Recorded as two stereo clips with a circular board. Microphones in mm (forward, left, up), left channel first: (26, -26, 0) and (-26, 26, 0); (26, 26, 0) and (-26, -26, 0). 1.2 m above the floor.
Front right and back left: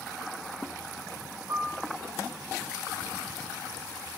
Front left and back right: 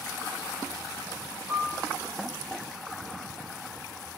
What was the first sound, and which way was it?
A piano, 140° left.